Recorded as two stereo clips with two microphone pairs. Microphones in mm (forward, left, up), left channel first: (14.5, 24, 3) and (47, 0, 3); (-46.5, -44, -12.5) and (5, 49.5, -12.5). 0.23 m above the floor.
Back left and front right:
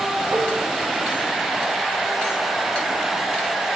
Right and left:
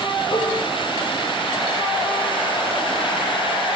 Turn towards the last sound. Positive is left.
turn(degrees=-70)